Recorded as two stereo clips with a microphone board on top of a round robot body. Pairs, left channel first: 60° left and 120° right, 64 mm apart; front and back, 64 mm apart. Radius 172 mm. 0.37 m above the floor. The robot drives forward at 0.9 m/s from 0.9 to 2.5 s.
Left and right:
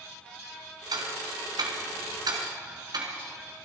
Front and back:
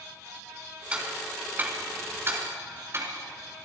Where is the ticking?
105° right, 3 m; by 3.1 s 130° right, 3.5 m.